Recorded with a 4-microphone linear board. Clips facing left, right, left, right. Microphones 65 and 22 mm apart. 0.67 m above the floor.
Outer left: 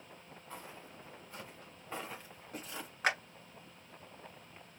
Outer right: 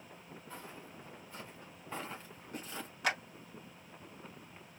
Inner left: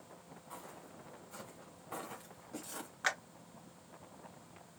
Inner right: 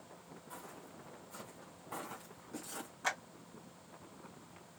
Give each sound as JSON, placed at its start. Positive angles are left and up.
{"t": 0.5, "sound": "footsteps", "side_deg": 25, "distance_m": 3.0}
{"t": 3.0, "sound": "a clap", "side_deg": 40, "distance_m": 1.6}